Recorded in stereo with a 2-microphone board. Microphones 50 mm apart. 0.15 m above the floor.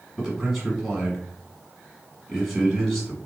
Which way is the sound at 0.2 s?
5° left (ahead or behind).